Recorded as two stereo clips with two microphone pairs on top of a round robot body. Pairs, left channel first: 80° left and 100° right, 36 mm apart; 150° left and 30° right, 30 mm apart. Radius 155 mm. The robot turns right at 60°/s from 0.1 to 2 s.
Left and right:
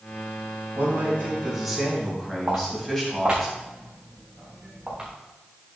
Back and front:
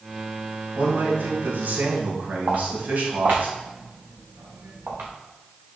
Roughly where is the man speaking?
Right.